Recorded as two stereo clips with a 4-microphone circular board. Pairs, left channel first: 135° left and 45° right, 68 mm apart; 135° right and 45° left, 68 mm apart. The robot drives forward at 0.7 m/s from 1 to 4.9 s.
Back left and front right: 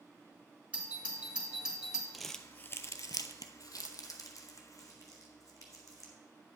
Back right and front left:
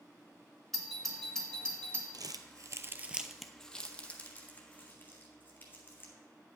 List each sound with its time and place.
0.7 s a doorbell: 55° right, 1.7 m; by 2.0 s 120° right, 1.7 m
2.1 s crumpling: 45° left, 0.6 m; by 6.1 s 165° left, 1.5 m